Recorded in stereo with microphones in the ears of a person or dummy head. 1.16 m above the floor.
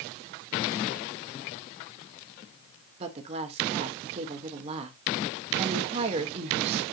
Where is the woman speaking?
30° right (ahead or behind), 1.6 m.